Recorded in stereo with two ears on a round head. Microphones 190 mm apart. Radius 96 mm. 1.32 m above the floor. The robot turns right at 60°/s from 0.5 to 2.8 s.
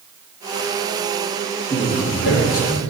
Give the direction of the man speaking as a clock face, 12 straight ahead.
11 o'clock.